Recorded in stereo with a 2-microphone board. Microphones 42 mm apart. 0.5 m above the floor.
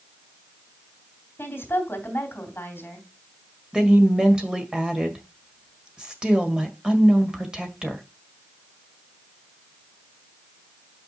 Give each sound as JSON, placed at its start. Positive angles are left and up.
{"t": 1.4, "sound": "a woman speaking", "side_deg": 65, "distance_m": 2.5}
{"t": 3.7, "sound": "a woman speaking", "side_deg": -15, "distance_m": 1.9}